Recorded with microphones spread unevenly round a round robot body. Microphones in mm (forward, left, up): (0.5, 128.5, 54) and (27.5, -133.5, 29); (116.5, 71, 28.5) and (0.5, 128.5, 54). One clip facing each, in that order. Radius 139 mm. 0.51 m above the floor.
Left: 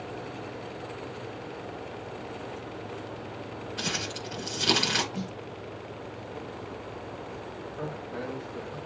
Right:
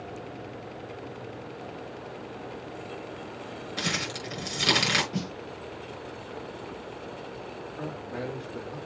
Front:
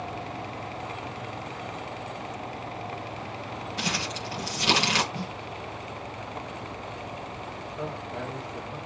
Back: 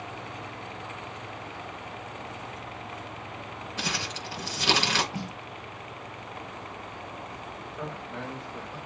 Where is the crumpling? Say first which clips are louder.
Right 3 dB, front 1 dB; 115° right, 5.5 m.